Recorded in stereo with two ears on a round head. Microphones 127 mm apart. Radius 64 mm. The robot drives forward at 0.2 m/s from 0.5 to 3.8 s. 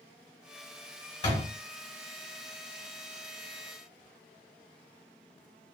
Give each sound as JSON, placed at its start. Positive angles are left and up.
{"t": 1.2, "sound": "a door slam", "side_deg": 35, "distance_m": 1.6}